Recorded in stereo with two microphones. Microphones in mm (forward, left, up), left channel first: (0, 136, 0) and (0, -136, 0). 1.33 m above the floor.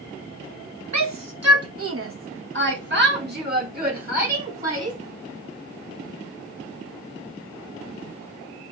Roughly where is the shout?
Right.